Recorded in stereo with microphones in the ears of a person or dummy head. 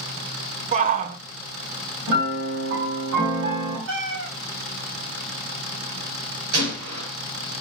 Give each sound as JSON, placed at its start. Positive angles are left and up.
{"t": 0.7, "sound": "a shout", "side_deg": -40, "distance_m": 1.0}
{"t": 2.1, "sound": "a piano", "side_deg": -60, "distance_m": 8.0}
{"t": 3.9, "sound": "a cat meowing", "side_deg": -65, "distance_m": 3.0}
{"t": 6.5, "sound": "a gunshot", "side_deg": -70, "distance_m": 8.0}